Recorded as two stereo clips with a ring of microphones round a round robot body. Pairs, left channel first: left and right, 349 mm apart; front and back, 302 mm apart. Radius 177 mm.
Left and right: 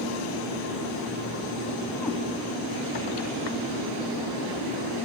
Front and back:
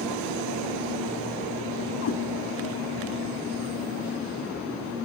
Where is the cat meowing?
Straight ahead, 0.8 m.